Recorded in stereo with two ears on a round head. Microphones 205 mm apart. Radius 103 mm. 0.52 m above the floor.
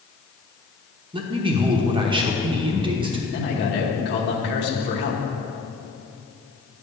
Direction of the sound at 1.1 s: 20° right (ahead or behind).